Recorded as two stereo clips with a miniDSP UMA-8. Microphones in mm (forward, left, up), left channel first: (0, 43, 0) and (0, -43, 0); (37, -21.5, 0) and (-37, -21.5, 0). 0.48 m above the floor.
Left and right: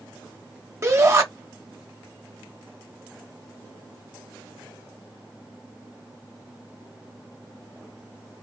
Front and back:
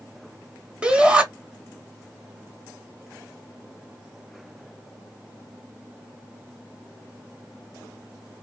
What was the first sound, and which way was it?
A shout, 115° right.